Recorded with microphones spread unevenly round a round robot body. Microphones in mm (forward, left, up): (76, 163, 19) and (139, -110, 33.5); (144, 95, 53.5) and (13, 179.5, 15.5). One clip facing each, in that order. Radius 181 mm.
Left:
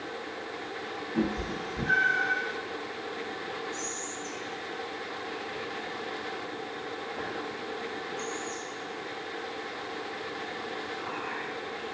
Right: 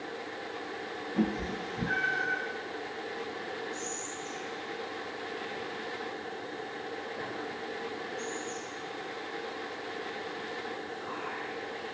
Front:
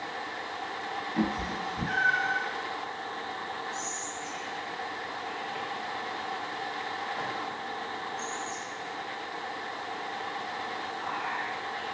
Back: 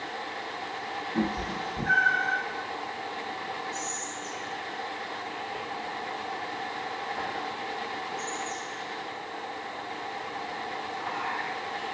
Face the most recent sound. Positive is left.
turn(degrees=120)